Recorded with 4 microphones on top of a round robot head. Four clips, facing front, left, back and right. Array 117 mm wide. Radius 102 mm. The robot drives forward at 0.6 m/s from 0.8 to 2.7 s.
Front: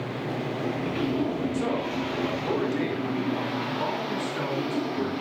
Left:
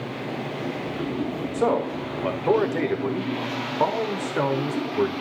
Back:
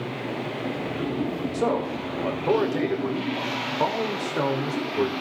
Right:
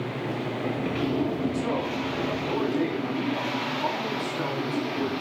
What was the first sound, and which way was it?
A man speaking, 115° left.